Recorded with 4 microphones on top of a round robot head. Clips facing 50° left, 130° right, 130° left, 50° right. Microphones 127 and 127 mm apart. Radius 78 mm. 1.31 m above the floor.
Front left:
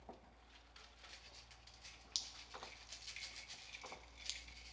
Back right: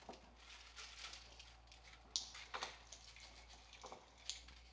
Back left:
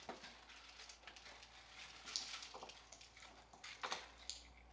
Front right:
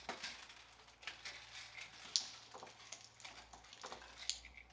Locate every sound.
2.1 s dripping: 35° right, 0.5 m